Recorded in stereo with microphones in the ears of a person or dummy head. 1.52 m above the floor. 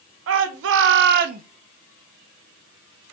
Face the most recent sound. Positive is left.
turn(degrees=-45)  # may be behind; listen again after turning